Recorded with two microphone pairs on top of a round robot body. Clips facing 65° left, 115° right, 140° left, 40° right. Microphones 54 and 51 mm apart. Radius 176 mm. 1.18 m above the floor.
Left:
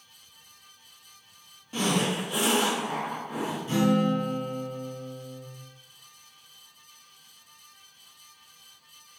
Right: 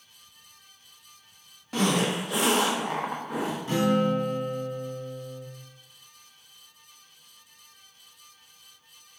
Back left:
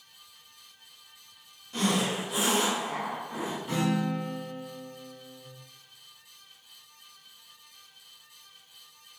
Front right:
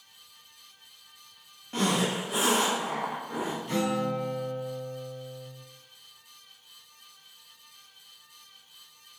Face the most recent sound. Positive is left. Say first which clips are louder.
# even, even
turn(degrees=-140)